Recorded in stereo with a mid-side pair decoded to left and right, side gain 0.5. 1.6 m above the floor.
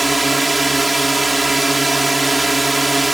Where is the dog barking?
I don't hear a dog barking.